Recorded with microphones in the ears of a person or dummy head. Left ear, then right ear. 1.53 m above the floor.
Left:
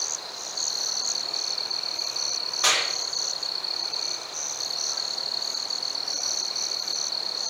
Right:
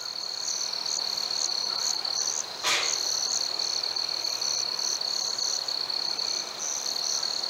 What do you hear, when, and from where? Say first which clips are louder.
2.6 s a clap: left 3 dB; 80° left, 2.5 m